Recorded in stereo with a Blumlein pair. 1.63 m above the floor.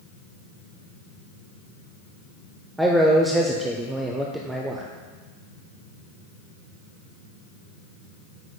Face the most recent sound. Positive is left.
turn(degrees=-5)